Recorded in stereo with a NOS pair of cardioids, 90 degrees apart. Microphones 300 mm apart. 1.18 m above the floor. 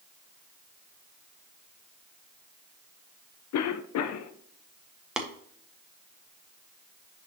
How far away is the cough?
About 0.9 m.